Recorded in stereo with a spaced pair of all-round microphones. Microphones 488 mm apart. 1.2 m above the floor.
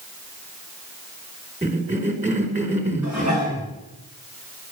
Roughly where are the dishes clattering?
Left.